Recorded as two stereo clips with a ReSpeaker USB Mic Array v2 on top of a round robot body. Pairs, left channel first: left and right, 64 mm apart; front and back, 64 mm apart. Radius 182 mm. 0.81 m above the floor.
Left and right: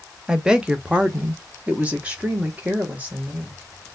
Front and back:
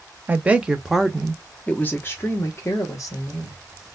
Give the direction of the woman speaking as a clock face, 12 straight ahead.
5 o'clock.